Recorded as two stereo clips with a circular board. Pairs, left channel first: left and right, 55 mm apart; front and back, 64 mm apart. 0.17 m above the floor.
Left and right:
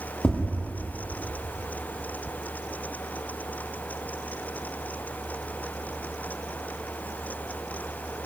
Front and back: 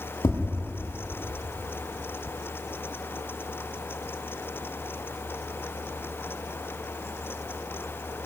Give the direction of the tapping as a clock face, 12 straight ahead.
11 o'clock.